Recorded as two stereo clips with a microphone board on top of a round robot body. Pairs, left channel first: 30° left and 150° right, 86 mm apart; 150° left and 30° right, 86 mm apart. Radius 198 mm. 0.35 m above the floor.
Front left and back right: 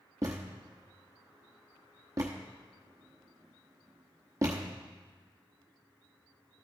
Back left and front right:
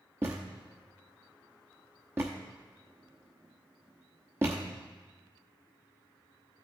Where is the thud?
95° right, 0.9 m.